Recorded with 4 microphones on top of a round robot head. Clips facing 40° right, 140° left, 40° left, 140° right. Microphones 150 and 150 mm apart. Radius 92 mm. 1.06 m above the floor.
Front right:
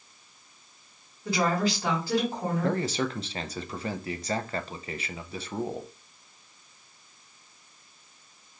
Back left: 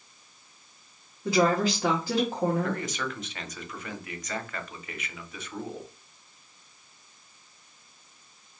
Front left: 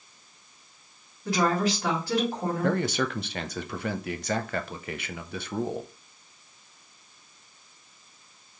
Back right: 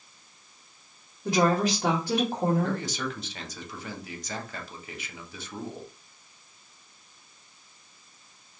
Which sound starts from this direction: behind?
A woman speaking, at 1.2 s.